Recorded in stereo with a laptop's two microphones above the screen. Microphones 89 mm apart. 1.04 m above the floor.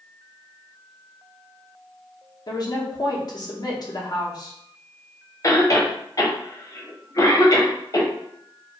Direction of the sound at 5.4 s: 40° left (ahead or behind).